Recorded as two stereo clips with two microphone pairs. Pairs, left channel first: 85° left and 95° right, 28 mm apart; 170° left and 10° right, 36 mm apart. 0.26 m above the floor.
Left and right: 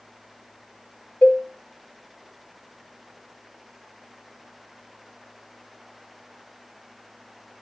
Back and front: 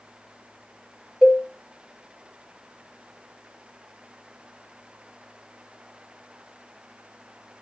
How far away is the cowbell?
About 0.5 m.